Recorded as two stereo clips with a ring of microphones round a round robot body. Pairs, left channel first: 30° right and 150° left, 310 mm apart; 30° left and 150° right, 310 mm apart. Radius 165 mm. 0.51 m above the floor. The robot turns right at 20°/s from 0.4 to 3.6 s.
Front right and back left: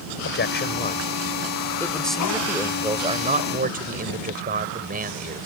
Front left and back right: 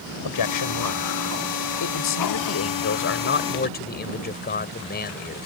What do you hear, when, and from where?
0.2 s a man speaking: 25° left; by 5.5 s 90° left